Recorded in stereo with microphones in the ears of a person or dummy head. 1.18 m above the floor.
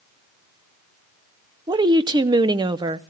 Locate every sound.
1.7 s a woman speaking: 25° right (ahead or behind), 0.6 m